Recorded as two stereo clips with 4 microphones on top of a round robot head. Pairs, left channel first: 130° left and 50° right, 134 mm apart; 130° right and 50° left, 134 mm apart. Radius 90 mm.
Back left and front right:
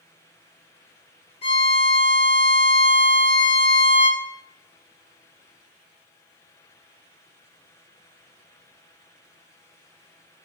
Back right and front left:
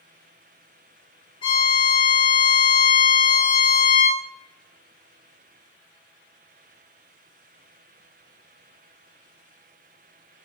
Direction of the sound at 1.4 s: 175° left.